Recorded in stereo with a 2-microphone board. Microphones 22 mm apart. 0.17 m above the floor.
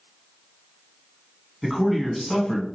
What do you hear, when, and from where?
1.6 s a man speaking: centre (ahead or behind), 1.1 m; by 2.7 s 25° left (ahead or behind), 1.1 m